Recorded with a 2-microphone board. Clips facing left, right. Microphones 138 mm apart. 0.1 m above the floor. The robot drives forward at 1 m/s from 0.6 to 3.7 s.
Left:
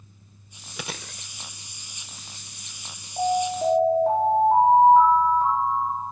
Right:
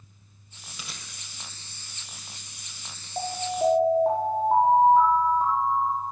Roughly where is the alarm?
Right.